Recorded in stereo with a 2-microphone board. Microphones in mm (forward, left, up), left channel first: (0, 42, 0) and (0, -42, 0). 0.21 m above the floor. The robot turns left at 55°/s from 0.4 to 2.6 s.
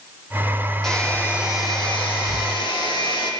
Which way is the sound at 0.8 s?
175° left.